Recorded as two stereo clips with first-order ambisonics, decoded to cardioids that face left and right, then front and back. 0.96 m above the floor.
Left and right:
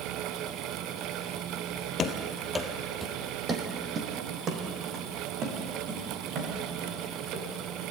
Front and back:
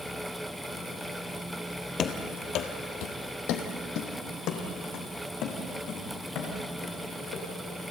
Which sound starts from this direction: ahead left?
Running footsteps, at 2.0 s.